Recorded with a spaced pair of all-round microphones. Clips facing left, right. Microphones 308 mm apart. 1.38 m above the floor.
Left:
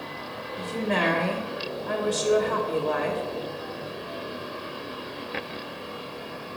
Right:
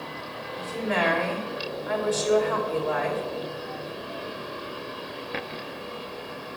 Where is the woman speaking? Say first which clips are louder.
Left 1 dB; 40° left (ahead or behind), 1.4 m.